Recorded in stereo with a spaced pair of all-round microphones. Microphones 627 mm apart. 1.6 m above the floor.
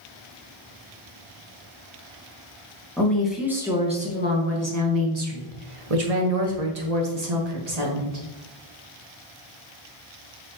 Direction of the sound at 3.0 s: 5° left (ahead or behind).